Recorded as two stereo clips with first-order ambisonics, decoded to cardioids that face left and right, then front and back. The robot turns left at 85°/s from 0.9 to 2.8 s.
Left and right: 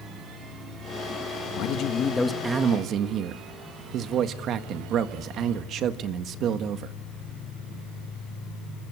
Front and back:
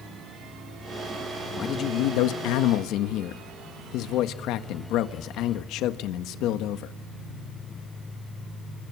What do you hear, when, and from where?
1.6 s a man speaking: 70° left, 1.5 m; by 6.9 s 35° right, 1.5 m